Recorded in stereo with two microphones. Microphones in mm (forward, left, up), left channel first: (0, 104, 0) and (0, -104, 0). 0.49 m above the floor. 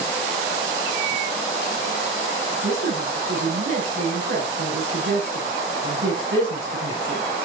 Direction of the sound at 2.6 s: 75° right (ahead or behind).